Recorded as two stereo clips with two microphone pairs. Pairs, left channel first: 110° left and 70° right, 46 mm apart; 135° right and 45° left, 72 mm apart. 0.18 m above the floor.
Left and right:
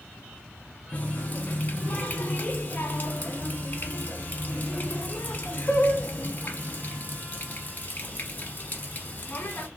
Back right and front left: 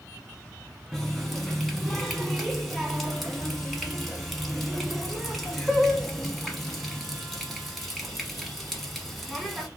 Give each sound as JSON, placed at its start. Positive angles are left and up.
{"t": 0.9, "sound": "a running tap", "azimuth_deg": 135, "distance_m": 0.9}